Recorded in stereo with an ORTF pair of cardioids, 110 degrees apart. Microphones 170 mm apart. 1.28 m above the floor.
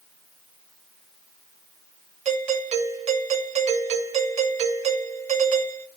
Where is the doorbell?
40° right, 2.5 m.